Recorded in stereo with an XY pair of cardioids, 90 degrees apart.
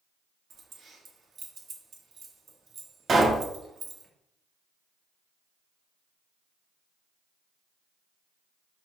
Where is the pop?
45° right, 1.4 m.